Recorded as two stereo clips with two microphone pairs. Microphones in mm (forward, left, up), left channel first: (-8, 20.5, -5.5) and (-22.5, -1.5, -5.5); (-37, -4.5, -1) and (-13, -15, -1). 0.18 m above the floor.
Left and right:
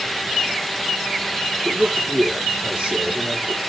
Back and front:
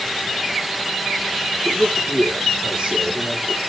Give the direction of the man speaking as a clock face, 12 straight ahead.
3 o'clock.